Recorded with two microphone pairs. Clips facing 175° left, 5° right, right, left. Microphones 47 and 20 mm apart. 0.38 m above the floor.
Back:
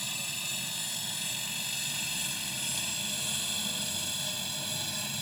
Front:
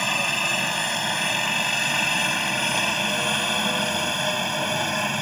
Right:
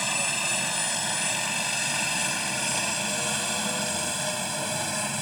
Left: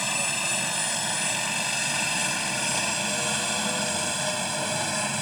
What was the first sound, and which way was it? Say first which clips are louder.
A helicopter: front 15 dB, even; straight ahead.